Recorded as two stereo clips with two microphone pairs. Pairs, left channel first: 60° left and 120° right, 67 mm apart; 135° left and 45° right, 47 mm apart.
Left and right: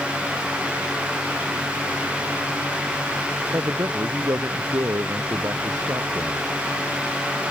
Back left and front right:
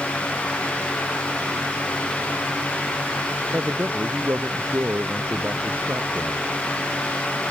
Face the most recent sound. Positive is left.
turn(degrees=-85)